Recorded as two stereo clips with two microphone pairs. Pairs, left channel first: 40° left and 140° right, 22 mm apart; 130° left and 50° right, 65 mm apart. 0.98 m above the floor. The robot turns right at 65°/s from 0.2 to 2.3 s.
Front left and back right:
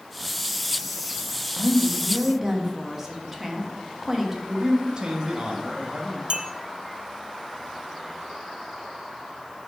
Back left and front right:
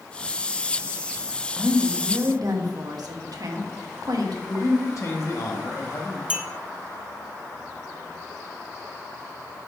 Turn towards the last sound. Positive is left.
turn(degrees=-115)